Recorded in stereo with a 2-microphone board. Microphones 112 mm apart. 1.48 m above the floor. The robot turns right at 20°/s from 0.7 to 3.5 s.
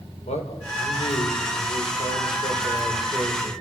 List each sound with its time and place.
0.3 s a man speaking: 100° left, 5.5 m; by 3.5 s 155° left, 5.5 m